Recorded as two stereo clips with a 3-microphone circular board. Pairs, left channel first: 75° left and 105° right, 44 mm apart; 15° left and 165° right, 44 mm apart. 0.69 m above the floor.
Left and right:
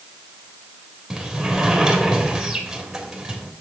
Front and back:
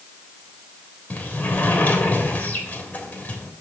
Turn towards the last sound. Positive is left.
turn(degrees=-25)